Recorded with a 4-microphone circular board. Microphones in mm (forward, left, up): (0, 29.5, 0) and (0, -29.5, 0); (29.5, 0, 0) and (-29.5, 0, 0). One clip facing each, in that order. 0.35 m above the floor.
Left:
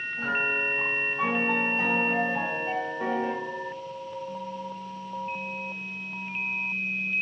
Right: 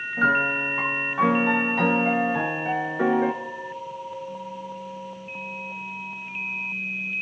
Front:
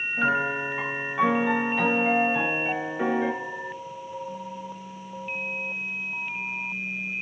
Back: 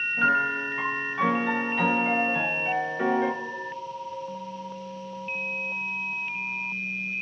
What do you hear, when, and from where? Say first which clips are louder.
0.2 s a piano: right 7 dB, back 1 dB; 90° right, 0.7 m